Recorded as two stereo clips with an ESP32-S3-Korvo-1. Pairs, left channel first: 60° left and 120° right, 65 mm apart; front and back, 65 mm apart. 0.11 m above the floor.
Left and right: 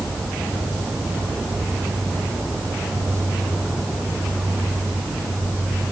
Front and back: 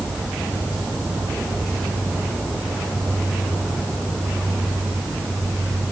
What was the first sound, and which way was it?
Only background noise.